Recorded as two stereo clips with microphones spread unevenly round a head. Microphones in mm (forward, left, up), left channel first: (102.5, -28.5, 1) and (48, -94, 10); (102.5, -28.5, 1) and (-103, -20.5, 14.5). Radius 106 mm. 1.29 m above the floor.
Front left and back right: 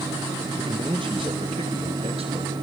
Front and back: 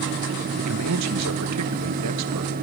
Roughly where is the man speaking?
Behind.